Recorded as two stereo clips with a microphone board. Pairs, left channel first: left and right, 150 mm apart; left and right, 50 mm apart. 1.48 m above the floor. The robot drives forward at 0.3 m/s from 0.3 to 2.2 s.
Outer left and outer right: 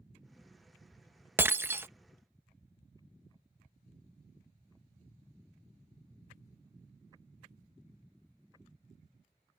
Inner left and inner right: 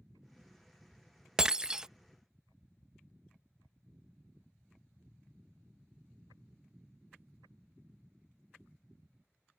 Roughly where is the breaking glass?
Centre.